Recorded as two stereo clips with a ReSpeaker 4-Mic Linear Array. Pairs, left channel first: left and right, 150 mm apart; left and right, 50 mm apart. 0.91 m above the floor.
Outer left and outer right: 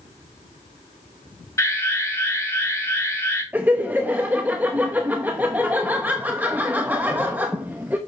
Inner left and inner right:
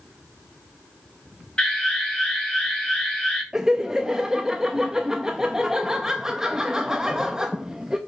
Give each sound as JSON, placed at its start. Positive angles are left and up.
{"t": 1.6, "sound": "an alarm", "side_deg": 20, "distance_m": 5.0}
{"t": 3.5, "sound": "laughter", "side_deg": -10, "distance_m": 0.7}